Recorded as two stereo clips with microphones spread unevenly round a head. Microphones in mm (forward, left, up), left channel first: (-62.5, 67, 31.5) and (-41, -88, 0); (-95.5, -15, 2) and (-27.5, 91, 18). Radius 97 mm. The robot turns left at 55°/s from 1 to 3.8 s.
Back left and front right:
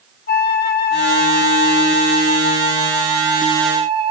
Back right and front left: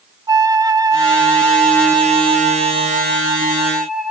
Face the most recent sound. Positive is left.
turn(degrees=-35)